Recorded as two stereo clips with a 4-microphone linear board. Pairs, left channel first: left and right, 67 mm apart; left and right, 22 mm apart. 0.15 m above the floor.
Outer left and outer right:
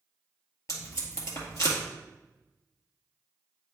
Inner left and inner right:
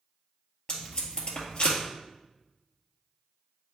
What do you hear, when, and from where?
0.7 s tape being pulled: 50° left (ahead or behind), 2 m